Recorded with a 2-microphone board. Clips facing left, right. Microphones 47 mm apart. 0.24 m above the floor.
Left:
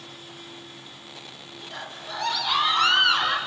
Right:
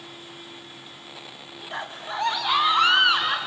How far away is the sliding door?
I don't hear a sliding door.